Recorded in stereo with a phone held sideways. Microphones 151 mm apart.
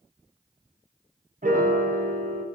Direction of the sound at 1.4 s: 65° right (ahead or behind).